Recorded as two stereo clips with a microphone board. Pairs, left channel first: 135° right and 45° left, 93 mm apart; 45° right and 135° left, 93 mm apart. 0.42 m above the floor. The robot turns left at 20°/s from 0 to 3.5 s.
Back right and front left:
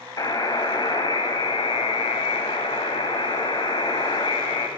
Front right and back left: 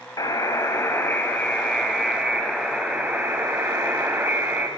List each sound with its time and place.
0.2 s a buzzer: 90° right, 0.8 m; by 4.7 s 155° right, 0.8 m